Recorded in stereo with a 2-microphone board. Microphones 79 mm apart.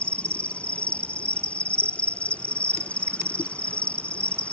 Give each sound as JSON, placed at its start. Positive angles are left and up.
{"t": 0.0, "sound": "an insect", "side_deg": 15}